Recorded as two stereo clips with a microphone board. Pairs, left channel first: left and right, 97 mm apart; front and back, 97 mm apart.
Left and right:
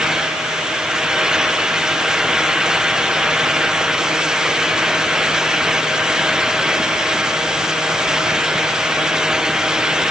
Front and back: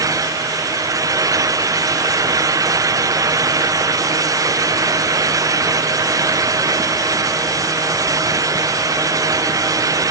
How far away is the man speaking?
No man speaking in this recording.